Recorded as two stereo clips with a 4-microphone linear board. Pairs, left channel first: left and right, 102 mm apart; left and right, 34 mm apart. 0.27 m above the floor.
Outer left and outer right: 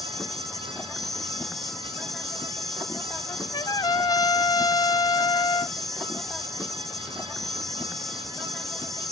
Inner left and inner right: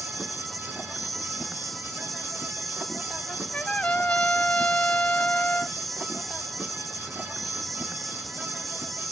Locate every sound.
0.0 s an insect: centre (ahead or behind)
3.3 s a trumpet: 45° left (ahead or behind)